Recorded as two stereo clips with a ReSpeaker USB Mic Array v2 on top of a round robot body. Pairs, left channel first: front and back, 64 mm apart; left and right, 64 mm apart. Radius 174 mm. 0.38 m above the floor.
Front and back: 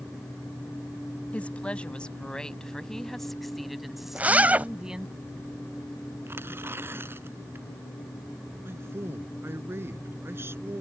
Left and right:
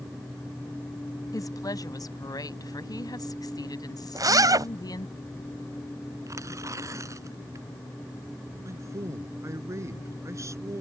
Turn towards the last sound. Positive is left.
turn(degrees=-130)